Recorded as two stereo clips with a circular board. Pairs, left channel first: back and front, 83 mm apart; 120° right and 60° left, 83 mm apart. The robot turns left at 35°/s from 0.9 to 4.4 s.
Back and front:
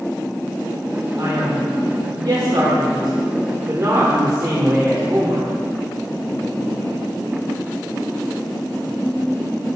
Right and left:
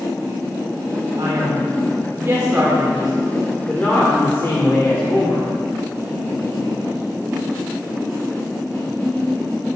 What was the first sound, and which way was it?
A man speaking, 45° left.